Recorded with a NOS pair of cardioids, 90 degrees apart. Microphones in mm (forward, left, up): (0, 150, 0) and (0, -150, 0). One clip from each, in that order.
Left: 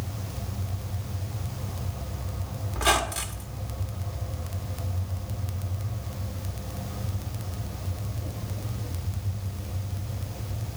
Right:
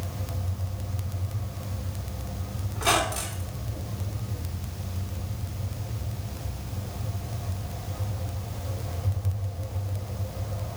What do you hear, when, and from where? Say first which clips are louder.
2.7 s a squeak: even; 45° left, 2.0 m